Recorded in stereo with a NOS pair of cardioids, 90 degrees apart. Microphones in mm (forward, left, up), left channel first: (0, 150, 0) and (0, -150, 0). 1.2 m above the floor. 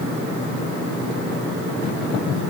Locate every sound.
Only background noise.